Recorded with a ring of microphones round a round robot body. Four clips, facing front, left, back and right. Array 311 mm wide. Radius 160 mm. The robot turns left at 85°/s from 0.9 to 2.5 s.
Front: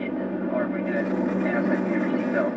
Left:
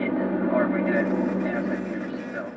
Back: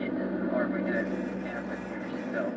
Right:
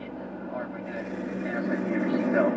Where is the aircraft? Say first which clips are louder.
Left 13 dB, front 3 dB; 75° left; by 2.6 s 60° right.